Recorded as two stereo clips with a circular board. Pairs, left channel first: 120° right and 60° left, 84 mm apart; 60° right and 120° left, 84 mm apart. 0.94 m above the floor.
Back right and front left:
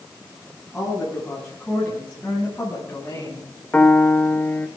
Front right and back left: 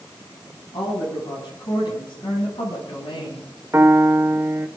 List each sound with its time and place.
0.7 s a woman speaking: 35° right, 7 m; by 3.5 s 60° right, 5.5 m
3.7 s a piano: 175° left, 1.3 m